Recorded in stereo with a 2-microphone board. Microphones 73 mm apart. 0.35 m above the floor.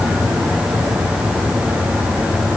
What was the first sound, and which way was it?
Only background noise.